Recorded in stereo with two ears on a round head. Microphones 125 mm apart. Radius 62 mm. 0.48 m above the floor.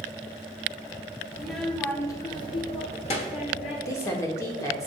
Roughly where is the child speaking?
Centre.